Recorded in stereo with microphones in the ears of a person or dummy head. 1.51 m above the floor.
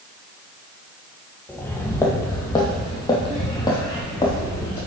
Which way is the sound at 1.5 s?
10° left (ahead or behind).